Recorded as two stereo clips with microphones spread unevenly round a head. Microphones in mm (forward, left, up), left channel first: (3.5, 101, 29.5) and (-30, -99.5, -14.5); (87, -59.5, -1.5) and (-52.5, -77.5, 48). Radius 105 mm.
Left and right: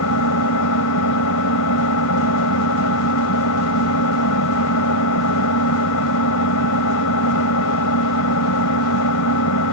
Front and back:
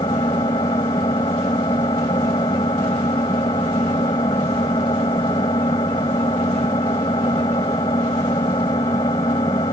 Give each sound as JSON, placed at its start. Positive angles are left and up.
{"t": 0.0, "sound": "an engine running", "azimuth_deg": 80}